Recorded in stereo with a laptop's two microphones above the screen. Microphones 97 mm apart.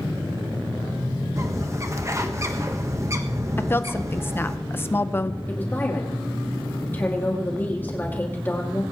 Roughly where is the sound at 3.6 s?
Left.